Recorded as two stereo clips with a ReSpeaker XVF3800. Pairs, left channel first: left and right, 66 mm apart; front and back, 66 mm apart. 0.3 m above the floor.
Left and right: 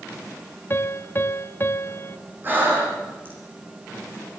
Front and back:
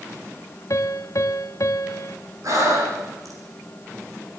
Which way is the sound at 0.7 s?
35° left.